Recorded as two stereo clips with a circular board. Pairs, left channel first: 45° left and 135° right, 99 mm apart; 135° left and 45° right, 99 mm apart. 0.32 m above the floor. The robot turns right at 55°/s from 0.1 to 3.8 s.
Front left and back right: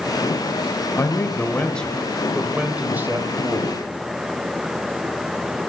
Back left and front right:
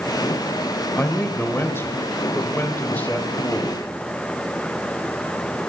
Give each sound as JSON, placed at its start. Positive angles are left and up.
{"t": 1.0, "sound": "a man speaking", "azimuth_deg": 70, "distance_m": 1.1}